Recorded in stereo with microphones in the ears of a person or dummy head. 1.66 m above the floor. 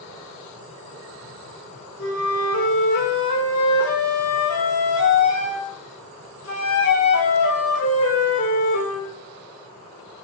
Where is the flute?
80° left, 6 m.